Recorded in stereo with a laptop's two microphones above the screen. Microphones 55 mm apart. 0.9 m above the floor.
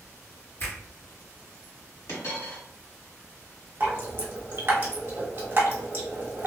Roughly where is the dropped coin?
Left.